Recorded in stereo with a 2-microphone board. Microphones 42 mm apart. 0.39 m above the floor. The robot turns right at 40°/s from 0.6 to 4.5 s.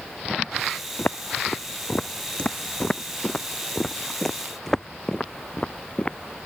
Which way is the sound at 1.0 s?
55° left (ahead or behind).